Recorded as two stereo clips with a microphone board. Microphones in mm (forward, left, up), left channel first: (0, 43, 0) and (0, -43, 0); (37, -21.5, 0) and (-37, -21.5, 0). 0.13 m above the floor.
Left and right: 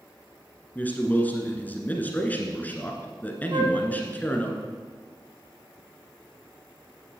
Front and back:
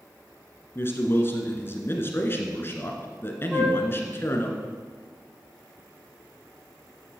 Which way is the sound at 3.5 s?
100° right.